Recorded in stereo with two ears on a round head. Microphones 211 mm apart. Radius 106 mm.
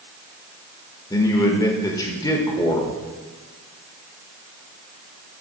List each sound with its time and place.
1.1 s a man speaking: 15° left (ahead or behind), 0.9 m